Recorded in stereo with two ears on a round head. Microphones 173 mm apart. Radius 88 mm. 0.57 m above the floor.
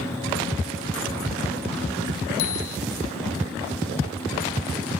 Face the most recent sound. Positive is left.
turn(degrees=90)